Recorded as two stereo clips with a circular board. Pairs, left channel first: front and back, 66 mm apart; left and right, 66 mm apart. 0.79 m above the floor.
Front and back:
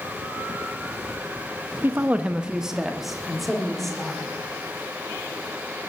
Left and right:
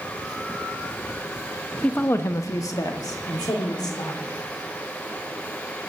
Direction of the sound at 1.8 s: 150° left.